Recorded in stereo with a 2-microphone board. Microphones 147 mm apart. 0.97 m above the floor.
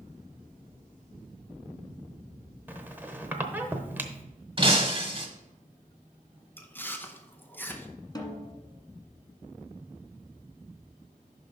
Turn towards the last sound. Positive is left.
turn(degrees=30)  # may be behind; listen again after turning